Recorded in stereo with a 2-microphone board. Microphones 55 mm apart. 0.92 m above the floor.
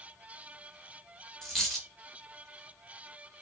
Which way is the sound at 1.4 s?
5° left (ahead or behind).